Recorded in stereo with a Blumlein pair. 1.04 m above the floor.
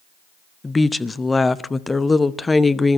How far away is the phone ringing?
No phone ringing in this recording.